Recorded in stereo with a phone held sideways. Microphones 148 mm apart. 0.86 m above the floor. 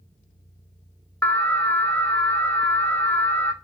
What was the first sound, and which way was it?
An alarm, 10° left (ahead or behind).